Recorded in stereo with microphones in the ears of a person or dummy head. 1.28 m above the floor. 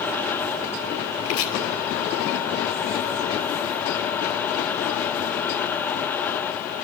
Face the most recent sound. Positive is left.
turn(degrees=70)  # may be behind; listen again after turning